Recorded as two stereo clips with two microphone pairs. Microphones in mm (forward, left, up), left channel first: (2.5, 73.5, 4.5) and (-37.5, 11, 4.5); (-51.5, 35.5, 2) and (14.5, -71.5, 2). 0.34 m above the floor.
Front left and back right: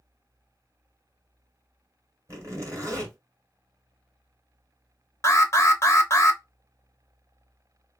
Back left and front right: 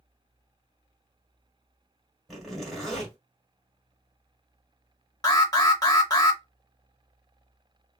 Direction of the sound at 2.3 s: 140° right.